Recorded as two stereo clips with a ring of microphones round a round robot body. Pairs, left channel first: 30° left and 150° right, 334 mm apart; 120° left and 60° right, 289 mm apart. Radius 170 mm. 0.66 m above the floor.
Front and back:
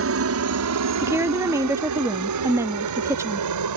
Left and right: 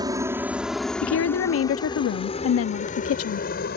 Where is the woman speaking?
130° left.